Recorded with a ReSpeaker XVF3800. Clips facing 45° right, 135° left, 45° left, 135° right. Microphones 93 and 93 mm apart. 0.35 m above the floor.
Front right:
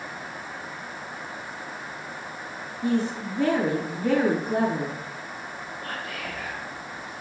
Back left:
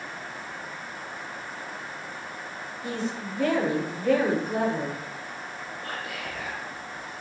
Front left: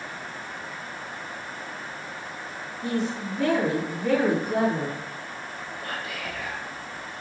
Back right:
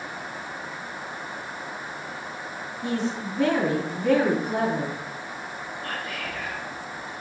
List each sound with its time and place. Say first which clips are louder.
2.8 s a woman speaking: front right 7 dB, even; 80° right, 3.5 m
5.8 s whispering: front right 1 dB, even; 90° right, 4.5 m